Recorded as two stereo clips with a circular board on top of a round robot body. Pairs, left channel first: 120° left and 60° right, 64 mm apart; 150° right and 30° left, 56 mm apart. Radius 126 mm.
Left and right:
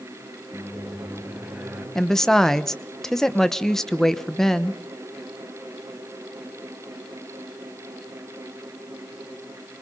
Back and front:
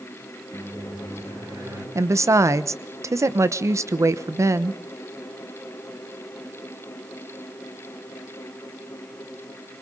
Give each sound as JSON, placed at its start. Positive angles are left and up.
{"t": 0.5, "sound": "a microwave", "azimuth_deg": 10, "distance_m": 5.5}
{"t": 1.9, "sound": "a woman speaking", "azimuth_deg": 40, "distance_m": 1.2}